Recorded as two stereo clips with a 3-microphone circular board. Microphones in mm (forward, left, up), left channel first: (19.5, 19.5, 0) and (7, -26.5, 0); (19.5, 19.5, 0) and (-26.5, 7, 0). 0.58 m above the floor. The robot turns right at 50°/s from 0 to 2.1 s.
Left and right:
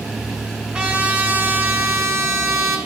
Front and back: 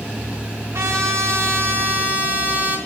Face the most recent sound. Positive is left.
turn(degrees=-110)